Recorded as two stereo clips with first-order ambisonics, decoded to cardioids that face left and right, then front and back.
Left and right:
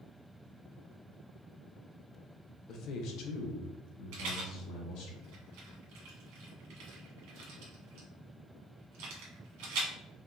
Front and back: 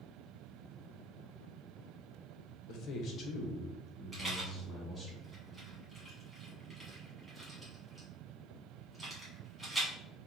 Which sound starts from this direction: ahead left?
A man speaking, at 2.7 s.